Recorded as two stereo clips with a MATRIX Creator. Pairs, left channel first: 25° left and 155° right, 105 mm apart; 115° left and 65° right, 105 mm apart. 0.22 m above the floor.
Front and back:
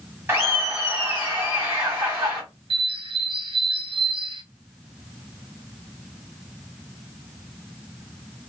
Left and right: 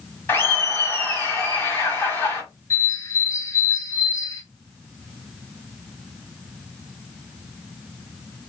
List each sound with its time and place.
0.3 s laughter: 165° left, 1.8 m
2.7 s a bird: 170° left, 0.5 m